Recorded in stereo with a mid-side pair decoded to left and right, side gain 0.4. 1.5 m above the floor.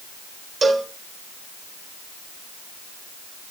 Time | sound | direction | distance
0.6 | a cowbell | 50° right | 1.4 m